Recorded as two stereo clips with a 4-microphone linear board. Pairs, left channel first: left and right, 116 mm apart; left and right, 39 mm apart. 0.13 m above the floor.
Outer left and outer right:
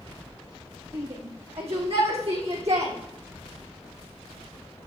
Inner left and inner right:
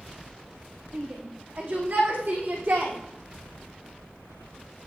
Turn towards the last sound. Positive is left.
turn(degrees=-80)